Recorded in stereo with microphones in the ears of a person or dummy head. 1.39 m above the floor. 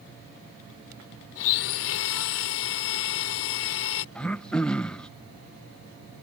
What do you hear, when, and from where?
1.4 s a blender: 70° left (ahead or behind)
4.2 s throat clearing: 10° left (ahead or behind)